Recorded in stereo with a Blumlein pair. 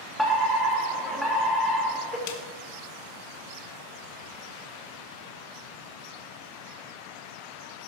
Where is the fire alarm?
Straight ahead, 3 m.